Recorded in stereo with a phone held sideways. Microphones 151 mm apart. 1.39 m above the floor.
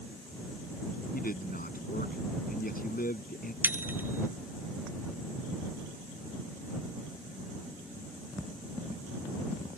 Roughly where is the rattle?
No rattle in this recording.